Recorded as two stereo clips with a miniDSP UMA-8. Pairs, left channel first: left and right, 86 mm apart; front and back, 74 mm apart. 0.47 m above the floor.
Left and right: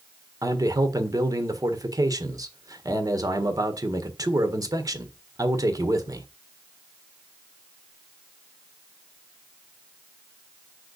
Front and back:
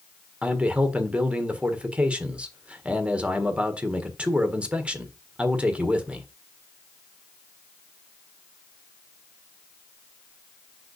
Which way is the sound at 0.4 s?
110° right.